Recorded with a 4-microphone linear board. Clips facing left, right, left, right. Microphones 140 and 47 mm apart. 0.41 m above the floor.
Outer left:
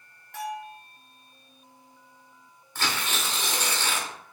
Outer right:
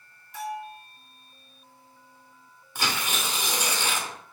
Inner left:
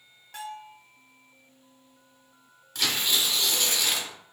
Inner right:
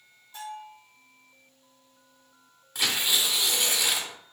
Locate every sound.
0.3 s a bell: 70° left (ahead or behind), 1.2 m
2.8 s tearing paper: 15° right (ahead or behind), 0.7 m